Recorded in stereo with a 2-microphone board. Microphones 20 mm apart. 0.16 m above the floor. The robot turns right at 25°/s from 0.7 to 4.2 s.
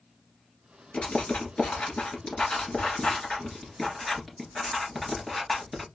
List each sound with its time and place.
0.9 s writing: 60° left (ahead or behind), 1.9 m; by 5.9 s centre (ahead or behind), 1.9 m